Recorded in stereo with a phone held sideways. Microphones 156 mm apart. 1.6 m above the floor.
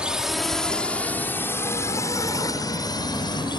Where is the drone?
5° right (ahead or behind); by 3.6 s 30° left (ahead or behind).